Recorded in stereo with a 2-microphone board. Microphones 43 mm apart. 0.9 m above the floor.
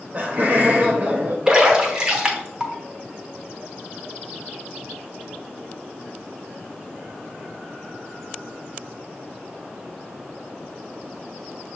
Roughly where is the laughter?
Right.